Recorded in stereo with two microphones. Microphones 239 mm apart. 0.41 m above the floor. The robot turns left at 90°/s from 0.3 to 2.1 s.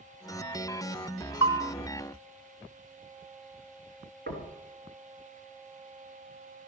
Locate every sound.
1.4 s a bell: 70° left (ahead or behind), 1.3 m; by 1.7 s 50° left (ahead or behind), 1.3 m
4.3 s knocking: 45° right (ahead or behind), 3 m